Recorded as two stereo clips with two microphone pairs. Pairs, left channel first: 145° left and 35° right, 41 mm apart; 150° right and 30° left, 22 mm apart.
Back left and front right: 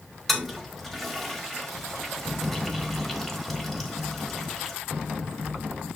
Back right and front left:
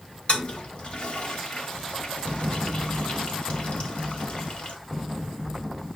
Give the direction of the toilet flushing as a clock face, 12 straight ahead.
4 o'clock.